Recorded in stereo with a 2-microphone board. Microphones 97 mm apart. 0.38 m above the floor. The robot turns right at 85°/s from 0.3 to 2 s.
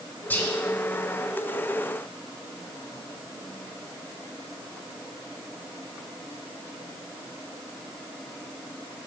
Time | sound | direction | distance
0.3 | whispering | 20° left (ahead or behind) | 0.9 m